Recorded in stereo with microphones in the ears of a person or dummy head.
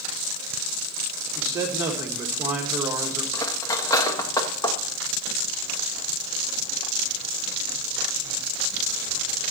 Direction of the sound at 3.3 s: 20° left (ahead or behind).